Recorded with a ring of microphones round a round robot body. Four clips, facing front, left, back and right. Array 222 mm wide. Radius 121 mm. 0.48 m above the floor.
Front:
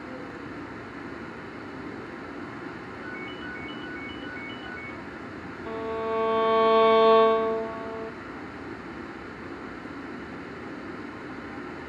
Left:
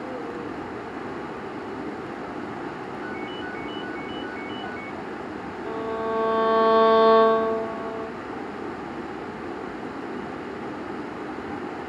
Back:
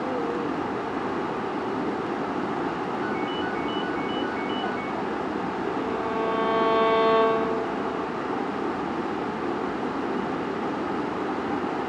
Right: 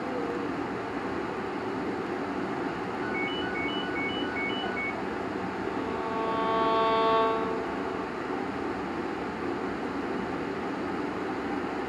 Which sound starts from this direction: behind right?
A ringtone, at 3.0 s.